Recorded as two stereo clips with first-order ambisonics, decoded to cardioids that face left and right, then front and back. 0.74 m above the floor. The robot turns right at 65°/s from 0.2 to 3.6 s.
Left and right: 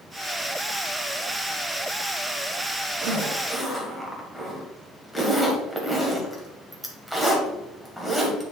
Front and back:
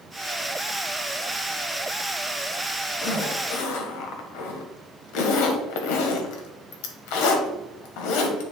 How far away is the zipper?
About 1.3 m.